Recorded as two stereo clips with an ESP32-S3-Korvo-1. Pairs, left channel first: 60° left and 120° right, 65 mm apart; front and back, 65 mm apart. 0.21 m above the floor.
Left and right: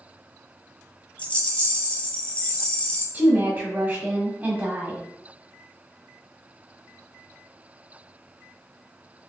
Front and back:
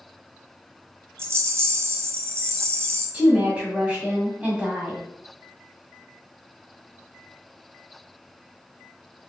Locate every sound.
1.2 s a rattle: 130° left, 0.7 m
3.1 s a woman speaking: 130° right, 1.4 m